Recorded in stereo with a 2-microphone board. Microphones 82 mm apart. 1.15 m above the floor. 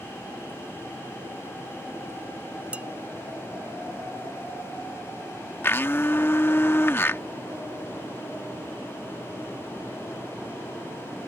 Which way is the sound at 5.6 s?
25° left (ahead or behind).